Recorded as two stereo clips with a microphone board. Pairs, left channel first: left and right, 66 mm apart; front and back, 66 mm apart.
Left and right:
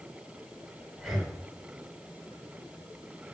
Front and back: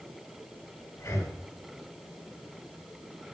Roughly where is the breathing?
Ahead.